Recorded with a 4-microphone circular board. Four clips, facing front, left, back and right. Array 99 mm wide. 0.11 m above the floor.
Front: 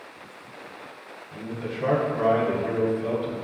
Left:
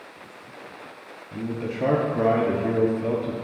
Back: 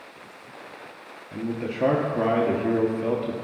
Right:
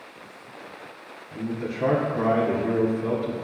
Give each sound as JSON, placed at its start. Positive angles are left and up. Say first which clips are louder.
{"t": 1.3, "sound": "a man speaking", "louder": "even, back 4 dB", "azimuth_deg": 145, "distance_m": 2.0}